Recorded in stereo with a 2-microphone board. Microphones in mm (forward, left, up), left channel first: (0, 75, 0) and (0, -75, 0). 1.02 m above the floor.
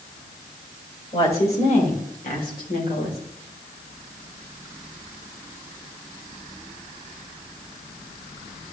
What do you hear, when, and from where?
1.1 s a woman speaking: 40° left (ahead or behind), 3.5 m; by 3.2 s 85° left, 3 m